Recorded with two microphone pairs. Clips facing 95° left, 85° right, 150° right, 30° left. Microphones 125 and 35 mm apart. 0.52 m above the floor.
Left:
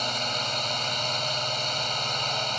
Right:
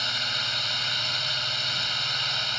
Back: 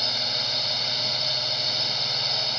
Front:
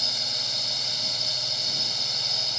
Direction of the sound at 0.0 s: 145° left.